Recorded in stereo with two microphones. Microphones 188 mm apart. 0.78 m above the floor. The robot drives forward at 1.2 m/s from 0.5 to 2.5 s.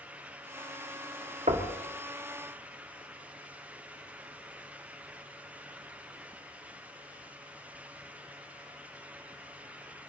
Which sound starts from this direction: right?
Knocking, at 1.5 s.